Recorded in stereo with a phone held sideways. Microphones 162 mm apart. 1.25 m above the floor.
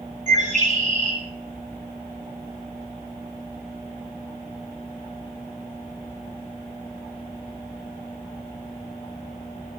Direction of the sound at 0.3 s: 50° right (ahead or behind).